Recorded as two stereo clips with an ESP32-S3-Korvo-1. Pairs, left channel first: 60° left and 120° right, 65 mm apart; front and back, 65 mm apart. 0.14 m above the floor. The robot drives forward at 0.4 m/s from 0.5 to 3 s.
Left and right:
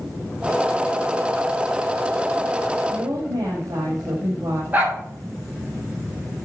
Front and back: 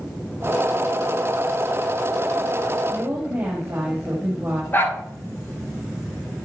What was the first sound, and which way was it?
A woman speaking, 130° right.